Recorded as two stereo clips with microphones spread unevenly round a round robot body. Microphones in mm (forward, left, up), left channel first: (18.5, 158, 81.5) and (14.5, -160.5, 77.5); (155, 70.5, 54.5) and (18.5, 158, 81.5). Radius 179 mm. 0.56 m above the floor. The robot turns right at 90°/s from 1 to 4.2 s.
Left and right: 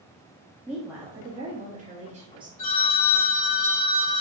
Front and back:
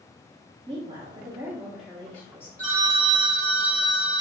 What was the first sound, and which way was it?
A woman speaking, 170° right.